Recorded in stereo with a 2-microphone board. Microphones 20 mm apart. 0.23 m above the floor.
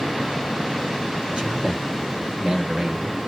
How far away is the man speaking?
About 3 m.